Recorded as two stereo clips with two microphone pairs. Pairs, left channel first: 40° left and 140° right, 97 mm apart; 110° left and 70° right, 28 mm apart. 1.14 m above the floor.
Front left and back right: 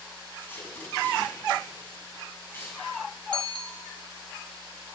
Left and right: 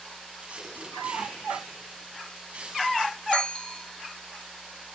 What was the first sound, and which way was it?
Tape being pulled, 25° right.